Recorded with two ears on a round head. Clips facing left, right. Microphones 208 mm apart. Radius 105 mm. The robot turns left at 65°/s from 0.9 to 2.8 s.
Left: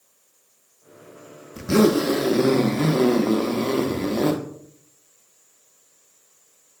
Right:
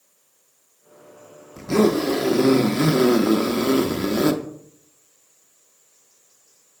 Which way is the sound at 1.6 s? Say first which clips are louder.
Left 1 dB; 20° left (ahead or behind).